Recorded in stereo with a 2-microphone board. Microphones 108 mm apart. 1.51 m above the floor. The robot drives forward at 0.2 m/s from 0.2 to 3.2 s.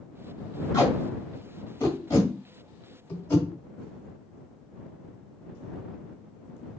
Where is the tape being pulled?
25° left (ahead or behind), 1.5 m; by 3.5 s 20° left (ahead or behind), 1.8 m.